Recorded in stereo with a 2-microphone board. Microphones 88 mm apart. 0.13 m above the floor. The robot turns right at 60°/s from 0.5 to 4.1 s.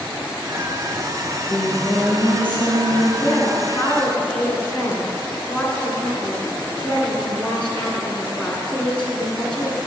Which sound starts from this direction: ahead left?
Singing, at 1.2 s.